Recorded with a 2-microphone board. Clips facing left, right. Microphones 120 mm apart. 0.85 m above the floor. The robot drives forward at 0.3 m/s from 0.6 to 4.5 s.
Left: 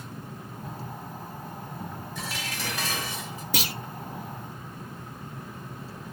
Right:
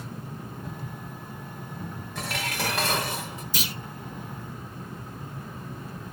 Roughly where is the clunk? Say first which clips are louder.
Left 4 dB; left.